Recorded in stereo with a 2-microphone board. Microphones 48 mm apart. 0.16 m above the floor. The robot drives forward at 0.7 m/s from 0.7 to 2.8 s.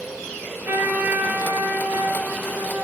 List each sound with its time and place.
0.7 s a trumpet: 50° right (ahead or behind), 3.5 m; by 2.9 s 40° right (ahead or behind), 4.5 m